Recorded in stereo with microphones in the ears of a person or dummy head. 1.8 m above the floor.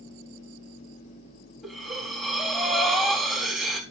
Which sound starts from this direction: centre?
Breathing, at 1.6 s.